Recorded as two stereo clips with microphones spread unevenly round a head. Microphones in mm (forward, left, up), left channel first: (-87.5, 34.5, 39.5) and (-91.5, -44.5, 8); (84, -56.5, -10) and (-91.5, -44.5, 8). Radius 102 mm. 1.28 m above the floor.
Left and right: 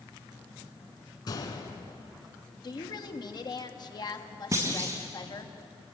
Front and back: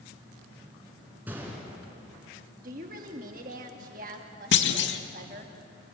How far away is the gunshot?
About 3.5 m.